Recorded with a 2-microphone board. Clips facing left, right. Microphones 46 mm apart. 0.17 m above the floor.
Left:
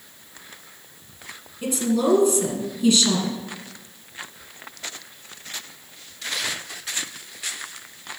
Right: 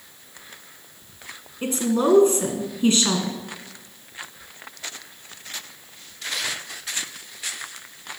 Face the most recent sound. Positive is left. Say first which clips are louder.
# even
turn(degrees=-35)  # may be behind; listen again after turning